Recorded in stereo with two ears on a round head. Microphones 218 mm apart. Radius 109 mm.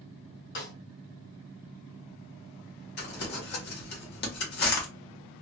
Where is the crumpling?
45° left (ahead or behind), 1.1 m.